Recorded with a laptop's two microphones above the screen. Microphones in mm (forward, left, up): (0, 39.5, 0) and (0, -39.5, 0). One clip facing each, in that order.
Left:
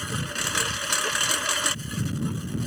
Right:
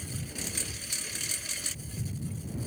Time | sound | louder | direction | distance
0.0 | a lawn mower | left 9 dB | 80° left | ?